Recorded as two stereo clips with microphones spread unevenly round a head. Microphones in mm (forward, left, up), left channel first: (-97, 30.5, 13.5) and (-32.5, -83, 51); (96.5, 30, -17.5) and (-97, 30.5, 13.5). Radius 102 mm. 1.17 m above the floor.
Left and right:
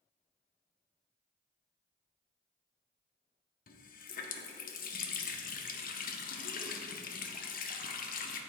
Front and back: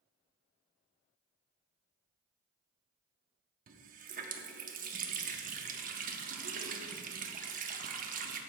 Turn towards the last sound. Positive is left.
turn(degrees=140)